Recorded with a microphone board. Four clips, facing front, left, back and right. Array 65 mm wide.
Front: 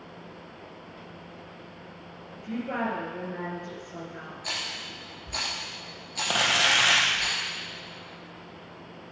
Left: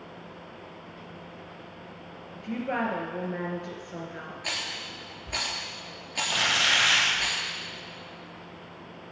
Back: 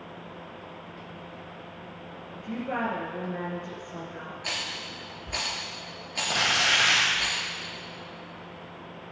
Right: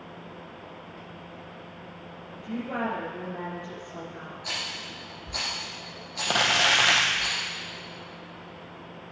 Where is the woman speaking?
90° left, 3 m.